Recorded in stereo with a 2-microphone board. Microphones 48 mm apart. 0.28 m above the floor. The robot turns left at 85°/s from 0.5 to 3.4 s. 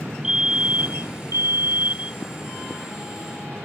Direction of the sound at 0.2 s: 15° right.